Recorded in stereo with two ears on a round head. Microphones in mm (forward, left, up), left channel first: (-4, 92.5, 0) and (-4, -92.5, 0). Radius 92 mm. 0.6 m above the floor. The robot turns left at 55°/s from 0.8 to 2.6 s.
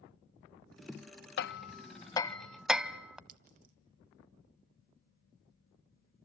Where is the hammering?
55° left (ahead or behind), 0.7 m; by 3.2 s 5° right (ahead or behind), 0.7 m.